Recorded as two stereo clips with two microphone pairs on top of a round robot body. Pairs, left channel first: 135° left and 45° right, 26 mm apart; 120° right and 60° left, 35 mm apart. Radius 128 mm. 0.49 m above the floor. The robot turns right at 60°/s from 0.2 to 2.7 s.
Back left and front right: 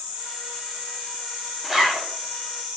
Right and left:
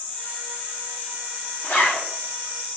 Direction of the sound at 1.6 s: 130° right.